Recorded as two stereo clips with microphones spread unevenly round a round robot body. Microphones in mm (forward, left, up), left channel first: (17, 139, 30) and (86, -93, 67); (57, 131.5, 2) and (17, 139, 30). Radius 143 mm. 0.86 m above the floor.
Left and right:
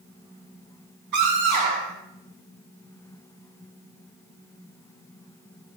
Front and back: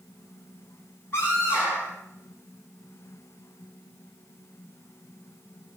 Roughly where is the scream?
Right.